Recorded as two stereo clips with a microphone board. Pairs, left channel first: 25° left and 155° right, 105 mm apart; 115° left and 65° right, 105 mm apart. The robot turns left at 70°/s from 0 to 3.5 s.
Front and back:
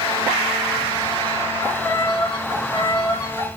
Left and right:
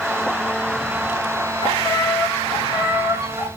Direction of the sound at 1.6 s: 90° left.